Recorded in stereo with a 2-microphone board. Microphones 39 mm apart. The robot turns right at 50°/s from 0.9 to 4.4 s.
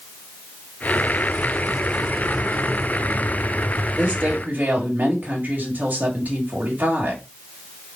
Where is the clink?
I don't hear a clink.